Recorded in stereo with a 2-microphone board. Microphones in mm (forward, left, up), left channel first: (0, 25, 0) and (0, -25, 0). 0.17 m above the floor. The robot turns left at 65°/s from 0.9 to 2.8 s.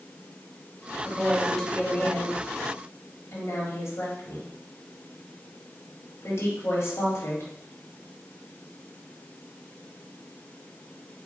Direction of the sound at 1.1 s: 20° right (ahead or behind).